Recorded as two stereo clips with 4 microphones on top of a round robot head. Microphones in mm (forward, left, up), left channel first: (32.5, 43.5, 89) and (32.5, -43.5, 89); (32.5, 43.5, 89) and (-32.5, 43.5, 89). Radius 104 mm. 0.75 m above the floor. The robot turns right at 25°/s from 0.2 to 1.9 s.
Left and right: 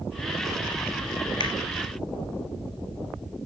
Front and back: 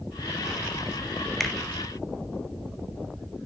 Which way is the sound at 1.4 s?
90° left.